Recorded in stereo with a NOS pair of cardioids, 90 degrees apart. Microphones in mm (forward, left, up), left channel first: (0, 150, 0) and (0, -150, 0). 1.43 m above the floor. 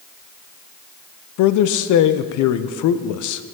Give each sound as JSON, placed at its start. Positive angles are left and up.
{"t": 1.4, "sound": "a man speaking", "azimuth_deg": 70, "distance_m": 0.6}